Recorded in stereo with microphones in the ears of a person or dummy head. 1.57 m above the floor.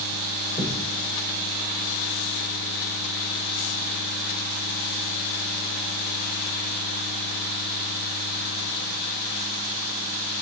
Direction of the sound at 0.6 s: 35° left (ahead or behind).